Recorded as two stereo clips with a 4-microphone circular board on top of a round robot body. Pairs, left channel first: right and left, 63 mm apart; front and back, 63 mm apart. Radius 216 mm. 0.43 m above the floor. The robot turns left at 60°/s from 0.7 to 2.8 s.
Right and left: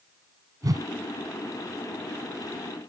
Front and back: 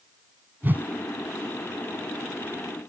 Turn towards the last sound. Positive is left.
turn(degrees=-5)